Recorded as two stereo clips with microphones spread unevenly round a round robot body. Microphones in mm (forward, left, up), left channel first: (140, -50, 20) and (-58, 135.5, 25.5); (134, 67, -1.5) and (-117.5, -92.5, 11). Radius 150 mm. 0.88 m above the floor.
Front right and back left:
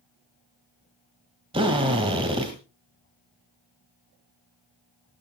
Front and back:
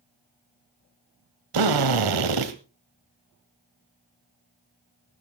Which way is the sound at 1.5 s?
150° right.